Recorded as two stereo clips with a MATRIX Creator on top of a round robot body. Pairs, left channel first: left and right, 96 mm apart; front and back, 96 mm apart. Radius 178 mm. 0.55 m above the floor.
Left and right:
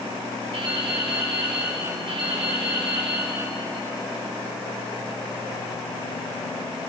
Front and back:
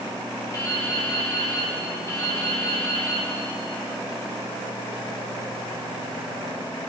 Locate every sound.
0.5 s dripping: 60° right, 5 m